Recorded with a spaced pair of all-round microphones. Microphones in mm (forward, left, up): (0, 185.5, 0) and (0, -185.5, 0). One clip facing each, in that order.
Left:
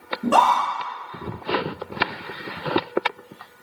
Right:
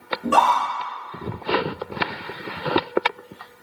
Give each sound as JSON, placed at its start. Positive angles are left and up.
{"t": 0.2, "sound": "a scream", "side_deg": 60, "distance_m": 1.3}